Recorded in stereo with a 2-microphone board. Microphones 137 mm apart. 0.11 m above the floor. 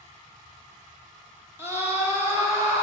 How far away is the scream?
About 1.2 m.